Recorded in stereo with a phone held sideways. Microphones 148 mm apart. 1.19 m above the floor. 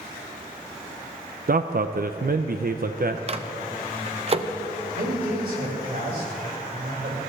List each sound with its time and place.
1.5 s a man speaking: 70° right (ahead or behind), 0.6 m
3.3 s a microwave: 40° right (ahead or behind), 0.8 m
4.9 s a man speaking: 85° right, 5 m